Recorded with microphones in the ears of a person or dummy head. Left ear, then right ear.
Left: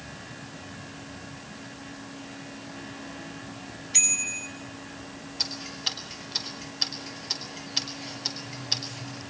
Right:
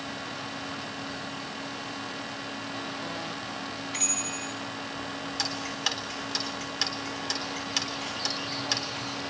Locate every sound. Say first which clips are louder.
3.9 s a bicycle bell: left 6 dB; 5° left (ahead or behind), 7.5 m
5.4 s ticking: left 1 dB; 60° right (ahead or behind), 3.5 m